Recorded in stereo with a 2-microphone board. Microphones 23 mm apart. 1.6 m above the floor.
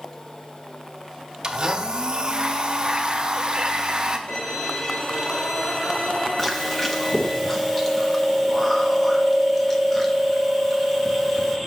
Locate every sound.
1.4 s a blender: 35° right (ahead or behind), 0.8 m
4.3 s a violin: 70° left (ahead or behind), 2 m
6.4 s chewing: 10° left (ahead or behind), 0.9 m